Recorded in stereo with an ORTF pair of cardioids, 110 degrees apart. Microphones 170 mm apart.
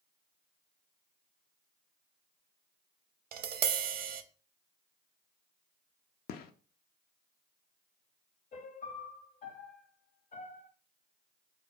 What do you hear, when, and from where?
3.3 s tapping: 65° right, 0.5 m
6.3 s a gunshot: 65° left, 0.5 m
8.5 s a piano: 50° left, 0.8 m